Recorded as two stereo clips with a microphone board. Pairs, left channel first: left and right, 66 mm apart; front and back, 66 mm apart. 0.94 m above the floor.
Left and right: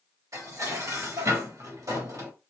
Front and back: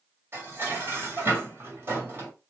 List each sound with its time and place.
0.3 s dishes clattering: 125° right, 1.8 m